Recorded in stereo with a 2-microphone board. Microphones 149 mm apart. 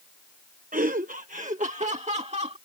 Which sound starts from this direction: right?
Laughter, at 0.7 s.